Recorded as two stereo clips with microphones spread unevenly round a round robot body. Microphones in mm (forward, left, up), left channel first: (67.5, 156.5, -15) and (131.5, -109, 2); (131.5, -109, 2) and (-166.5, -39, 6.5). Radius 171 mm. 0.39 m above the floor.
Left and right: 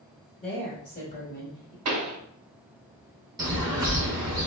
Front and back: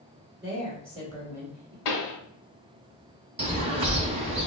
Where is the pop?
40° right, 0.7 m.